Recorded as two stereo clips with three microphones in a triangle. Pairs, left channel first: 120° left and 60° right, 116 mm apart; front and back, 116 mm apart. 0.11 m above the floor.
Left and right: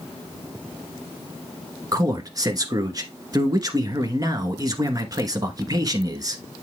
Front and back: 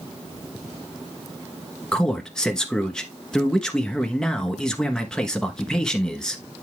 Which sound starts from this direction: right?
A man speaking, at 1.9 s.